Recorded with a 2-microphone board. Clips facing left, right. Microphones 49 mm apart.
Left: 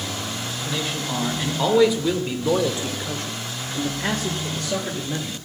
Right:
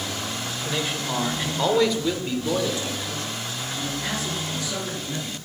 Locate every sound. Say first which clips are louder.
0.7 s a man speaking: even; 10° right (ahead or behind), 1.4 m; by 5.3 s 50° left (ahead or behind), 1.6 m